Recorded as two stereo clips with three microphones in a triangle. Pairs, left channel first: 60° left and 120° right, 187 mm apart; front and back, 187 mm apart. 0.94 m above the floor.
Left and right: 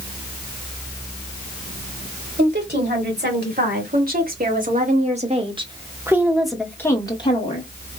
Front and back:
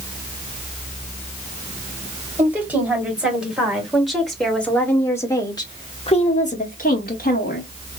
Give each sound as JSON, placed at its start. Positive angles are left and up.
{"t": 2.4, "sound": "a woman speaking", "azimuth_deg": -100, "distance_m": 3.0}